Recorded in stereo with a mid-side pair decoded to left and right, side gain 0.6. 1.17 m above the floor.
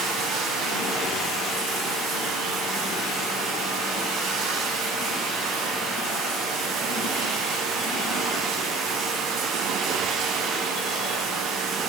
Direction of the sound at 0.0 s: 65° right.